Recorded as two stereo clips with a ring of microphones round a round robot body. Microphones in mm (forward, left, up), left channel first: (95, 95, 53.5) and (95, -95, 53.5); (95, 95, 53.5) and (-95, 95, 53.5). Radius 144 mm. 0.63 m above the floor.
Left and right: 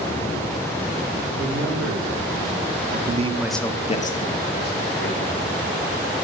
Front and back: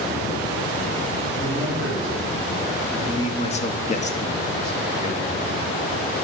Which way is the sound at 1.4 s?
100° right.